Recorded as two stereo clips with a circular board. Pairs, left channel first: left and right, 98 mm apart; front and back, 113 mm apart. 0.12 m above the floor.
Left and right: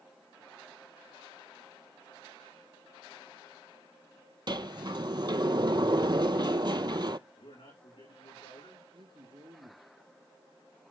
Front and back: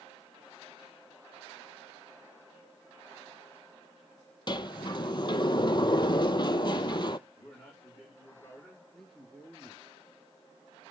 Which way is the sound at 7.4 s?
65° left.